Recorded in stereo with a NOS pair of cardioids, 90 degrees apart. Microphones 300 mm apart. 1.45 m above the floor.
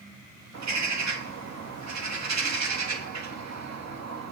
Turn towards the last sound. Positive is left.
turn(degrees=-60)